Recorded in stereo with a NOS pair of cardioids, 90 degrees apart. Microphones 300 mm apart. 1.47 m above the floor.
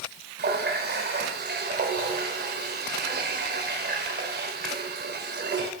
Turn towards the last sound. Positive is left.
turn(degrees=-35)